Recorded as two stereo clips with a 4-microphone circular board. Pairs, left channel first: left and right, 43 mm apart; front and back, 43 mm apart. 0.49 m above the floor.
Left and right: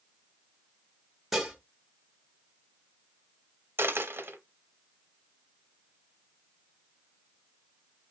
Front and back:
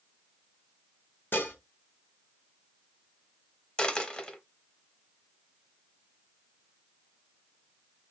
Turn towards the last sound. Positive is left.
turn(degrees=-65)